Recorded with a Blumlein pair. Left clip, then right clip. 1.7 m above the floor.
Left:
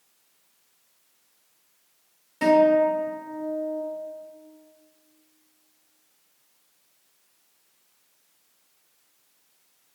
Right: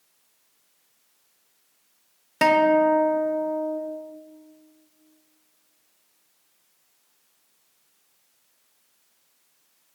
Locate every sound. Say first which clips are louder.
2.4 s a guitar: even; 35° right, 0.6 m